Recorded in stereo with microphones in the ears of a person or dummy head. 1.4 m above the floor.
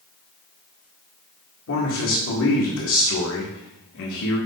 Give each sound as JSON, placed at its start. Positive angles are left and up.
{"t": 1.7, "sound": "a man speaking", "side_deg": 70, "distance_m": 1.8}